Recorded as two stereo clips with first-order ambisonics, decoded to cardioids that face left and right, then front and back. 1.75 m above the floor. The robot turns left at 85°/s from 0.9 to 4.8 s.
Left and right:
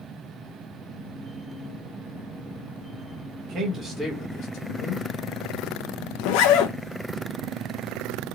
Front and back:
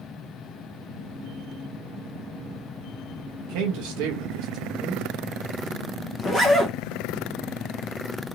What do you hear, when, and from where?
3.4 s a man speaking: 140° right, 0.8 m; by 5.1 s 100° left, 0.8 m
6.2 s a zipper: 90° left, 0.6 m